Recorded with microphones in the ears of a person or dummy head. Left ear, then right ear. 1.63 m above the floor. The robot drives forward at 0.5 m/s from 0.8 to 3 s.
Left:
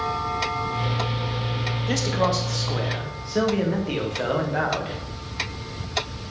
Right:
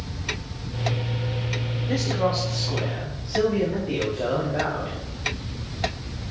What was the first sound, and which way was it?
A man speaking, 75° left (ahead or behind).